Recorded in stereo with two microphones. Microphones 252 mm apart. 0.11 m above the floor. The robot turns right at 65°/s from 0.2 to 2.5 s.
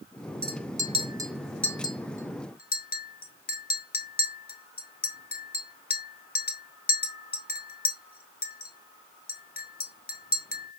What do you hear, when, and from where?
0.4 s a clink: 40° right (ahead or behind), 0.9 m; by 10.8 s 40° left (ahead or behind), 0.9 m